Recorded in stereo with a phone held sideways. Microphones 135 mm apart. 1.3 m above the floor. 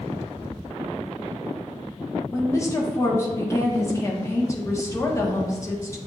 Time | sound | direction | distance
2.3 | a woman speaking | 25° left (ahead or behind) | 1.1 m